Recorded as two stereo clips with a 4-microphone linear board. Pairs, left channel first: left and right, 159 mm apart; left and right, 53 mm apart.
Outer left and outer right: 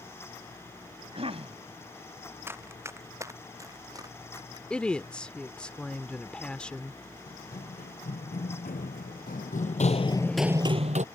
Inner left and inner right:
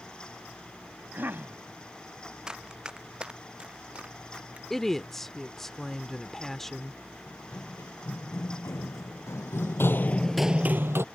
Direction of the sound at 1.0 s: 40° right (ahead or behind).